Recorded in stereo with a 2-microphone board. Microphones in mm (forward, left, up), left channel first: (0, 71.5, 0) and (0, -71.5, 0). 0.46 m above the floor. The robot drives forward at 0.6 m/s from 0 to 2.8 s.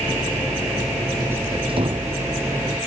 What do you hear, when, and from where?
1.7 s a door slam: 40° right (ahead or behind)